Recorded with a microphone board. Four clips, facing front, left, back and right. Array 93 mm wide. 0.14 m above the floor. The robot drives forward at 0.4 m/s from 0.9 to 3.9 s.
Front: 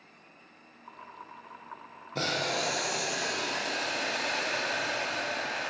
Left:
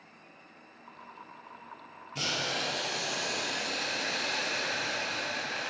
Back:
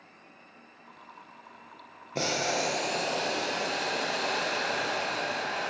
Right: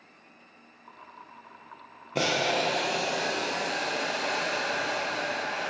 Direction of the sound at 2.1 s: 100° right.